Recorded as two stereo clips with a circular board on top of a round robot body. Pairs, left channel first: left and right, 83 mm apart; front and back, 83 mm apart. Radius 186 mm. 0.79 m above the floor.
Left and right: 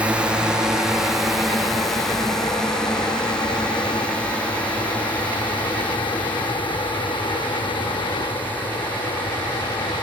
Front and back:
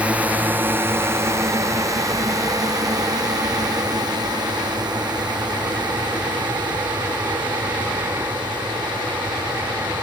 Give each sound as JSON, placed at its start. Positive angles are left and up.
{"t": 0.0, "sound": "a drone", "azimuth_deg": -135}